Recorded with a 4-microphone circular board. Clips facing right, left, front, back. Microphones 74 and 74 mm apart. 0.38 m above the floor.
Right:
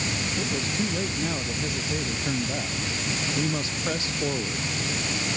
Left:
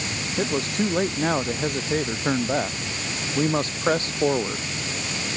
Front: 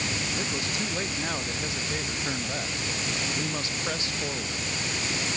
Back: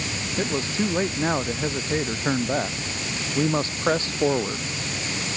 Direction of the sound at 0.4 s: 120° left.